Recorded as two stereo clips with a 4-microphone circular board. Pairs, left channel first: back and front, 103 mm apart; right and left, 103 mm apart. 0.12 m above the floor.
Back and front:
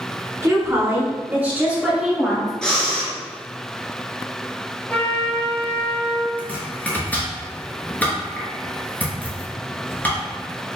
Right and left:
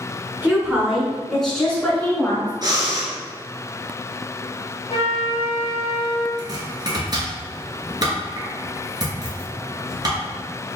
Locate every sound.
0.4 s a woman speaking: 35° left, 1.5 m; by 2.5 s 95° right, 1.5 m
2.6 s breathing: 100° left, 1.2 m
4.9 s a trumpet: 110° right, 0.8 m
6.4 s chopping: 110° left, 1.4 m